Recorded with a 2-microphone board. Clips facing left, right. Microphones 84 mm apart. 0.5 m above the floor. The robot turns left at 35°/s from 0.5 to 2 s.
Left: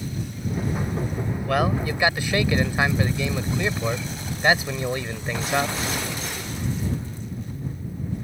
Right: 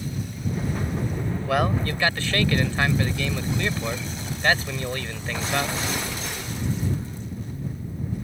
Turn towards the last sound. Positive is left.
turn(degrees=15)  # may be behind; listen again after turning